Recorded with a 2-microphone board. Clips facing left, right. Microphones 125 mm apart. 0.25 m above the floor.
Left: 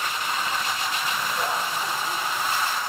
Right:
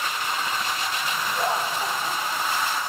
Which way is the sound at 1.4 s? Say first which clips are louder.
Right 5 dB; 25° right (ahead or behind).